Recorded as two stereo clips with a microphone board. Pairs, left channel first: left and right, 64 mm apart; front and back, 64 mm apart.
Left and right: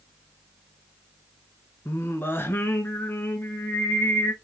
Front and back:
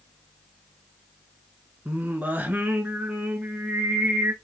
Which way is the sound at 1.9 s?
130° left.